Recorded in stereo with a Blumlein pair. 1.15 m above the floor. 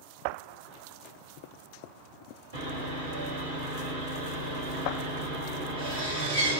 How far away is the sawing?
About 1.8 m.